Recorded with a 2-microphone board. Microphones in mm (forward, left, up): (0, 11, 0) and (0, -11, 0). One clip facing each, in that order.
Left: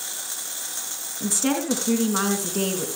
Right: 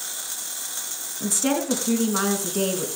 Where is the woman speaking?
5° left (ahead or behind), 2.5 m.